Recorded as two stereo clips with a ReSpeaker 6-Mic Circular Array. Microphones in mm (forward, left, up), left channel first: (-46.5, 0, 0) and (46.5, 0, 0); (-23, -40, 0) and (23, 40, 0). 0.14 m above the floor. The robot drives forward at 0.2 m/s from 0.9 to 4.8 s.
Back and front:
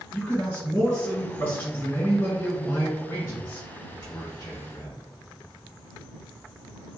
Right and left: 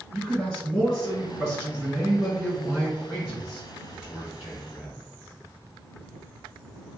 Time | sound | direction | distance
0.1 | a man speaking | 150° left | 1.5 m